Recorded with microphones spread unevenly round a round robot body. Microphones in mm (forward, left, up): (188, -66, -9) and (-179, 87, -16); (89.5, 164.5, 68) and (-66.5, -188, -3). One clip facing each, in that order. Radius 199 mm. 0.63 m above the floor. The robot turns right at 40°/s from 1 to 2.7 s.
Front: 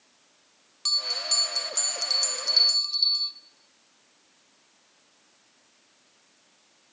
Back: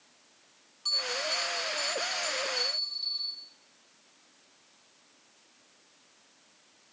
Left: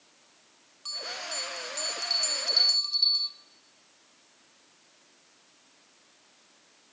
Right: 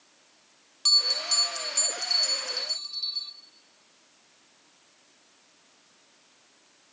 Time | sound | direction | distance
0.8 | a bell | 65° right | 0.9 m